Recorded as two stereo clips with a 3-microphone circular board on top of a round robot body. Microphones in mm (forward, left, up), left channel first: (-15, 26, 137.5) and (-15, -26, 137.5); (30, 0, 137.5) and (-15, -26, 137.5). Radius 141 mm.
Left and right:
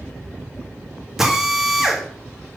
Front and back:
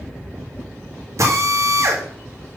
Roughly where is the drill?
Behind.